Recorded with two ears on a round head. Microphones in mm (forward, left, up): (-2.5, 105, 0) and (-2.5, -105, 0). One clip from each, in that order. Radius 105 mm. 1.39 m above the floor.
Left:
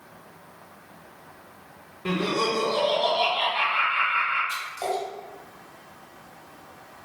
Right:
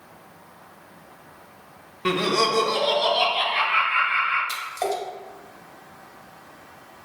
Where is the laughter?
40° right (ahead or behind), 0.5 m; by 4.4 s 75° right (ahead or behind), 1.8 m.